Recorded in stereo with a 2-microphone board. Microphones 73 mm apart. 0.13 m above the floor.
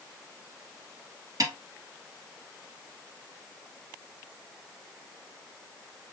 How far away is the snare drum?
About 1.7 m.